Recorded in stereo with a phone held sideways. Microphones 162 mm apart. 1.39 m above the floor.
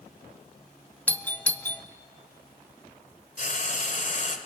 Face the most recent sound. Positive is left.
turn(degrees=50)  # may be behind; listen again after turning